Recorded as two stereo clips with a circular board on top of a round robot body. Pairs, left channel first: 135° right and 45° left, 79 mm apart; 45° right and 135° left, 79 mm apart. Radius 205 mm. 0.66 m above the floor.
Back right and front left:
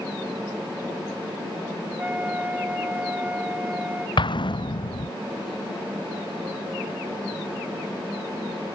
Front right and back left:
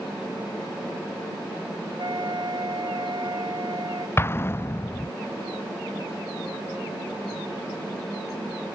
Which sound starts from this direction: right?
An explosion, at 4.2 s.